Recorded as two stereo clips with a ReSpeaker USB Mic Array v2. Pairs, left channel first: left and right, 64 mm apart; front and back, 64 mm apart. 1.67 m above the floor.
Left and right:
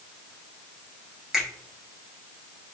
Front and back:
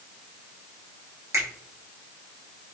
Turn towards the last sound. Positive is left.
turn(degrees=-175)